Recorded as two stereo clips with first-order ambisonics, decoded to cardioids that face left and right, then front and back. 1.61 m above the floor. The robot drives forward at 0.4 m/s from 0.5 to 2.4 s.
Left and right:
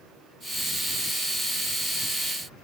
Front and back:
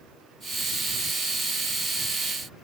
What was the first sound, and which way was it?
Only background noise.